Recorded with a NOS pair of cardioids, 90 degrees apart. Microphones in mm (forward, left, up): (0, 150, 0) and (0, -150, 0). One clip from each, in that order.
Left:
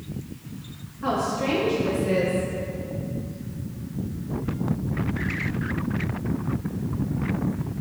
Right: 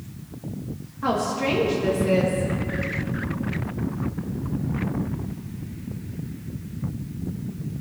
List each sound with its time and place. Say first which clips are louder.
1.0 s a woman speaking: right 1 dB; 30° right, 2.5 m